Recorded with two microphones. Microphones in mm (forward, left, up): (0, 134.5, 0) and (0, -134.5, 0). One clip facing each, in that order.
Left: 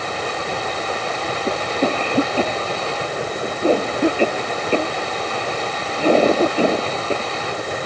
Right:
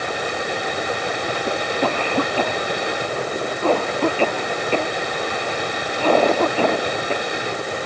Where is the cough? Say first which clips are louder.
Left 3 dB; 15° left (ahead or behind).